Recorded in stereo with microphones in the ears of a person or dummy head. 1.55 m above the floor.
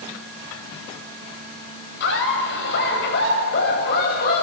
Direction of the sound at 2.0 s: 60° left (ahead or behind).